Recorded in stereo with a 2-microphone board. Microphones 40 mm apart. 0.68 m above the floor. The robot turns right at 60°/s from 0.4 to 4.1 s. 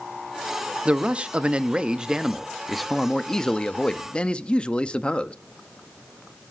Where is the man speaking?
25° right (ahead or behind), 0.8 m; by 5.3 s 25° left (ahead or behind), 0.8 m.